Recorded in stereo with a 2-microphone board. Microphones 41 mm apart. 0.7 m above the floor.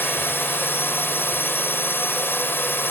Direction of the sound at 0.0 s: 65° left (ahead or behind).